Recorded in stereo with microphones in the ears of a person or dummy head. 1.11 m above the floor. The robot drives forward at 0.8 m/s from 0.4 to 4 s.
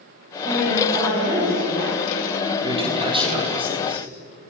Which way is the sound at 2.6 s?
35° right (ahead or behind).